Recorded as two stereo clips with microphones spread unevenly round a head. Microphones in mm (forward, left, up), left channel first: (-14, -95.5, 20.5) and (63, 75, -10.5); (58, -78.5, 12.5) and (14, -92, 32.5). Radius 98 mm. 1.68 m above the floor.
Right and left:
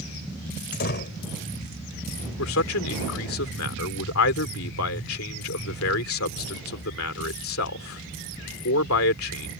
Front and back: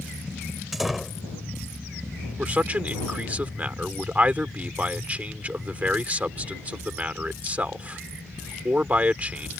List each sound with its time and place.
0.7 s a door slam: 80° right
2.4 s a man speaking: 115° right